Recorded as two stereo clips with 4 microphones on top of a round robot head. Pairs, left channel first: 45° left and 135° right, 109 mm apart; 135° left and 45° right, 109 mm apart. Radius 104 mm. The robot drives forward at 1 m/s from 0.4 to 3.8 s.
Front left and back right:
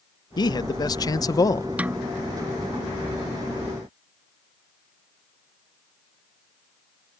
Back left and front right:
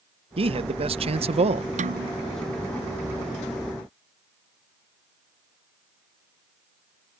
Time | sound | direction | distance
0.4 | a man speaking | 10° right | ?
1.8 | a snare drum | 60° right | ?